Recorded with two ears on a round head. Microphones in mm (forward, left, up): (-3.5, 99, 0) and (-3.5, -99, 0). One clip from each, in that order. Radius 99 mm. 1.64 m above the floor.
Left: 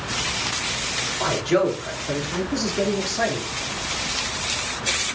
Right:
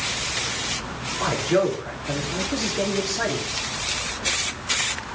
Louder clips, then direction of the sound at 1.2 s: Even; 25° left (ahead or behind).